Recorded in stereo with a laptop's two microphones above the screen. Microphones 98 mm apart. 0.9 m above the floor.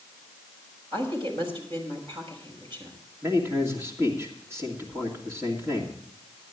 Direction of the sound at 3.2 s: 30° right (ahead or behind).